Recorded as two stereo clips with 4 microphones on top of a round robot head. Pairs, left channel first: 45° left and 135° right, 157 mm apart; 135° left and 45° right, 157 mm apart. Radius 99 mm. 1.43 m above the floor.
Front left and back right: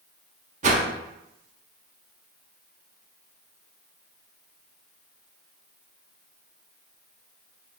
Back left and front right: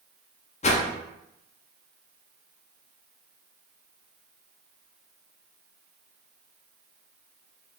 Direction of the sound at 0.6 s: 175° right.